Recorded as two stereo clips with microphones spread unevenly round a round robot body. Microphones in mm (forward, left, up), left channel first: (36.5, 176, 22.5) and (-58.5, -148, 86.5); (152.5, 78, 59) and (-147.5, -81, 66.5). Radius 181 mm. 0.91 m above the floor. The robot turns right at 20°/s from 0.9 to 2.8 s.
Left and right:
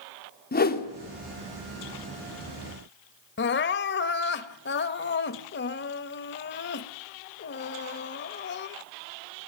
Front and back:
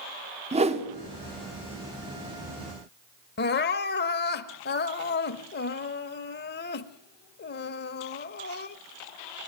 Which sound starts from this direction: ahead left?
Crying, at 3.4 s.